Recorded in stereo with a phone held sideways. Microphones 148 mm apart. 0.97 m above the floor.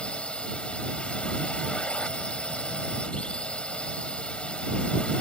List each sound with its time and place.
0.0 s a drone: 5° left (ahead or behind)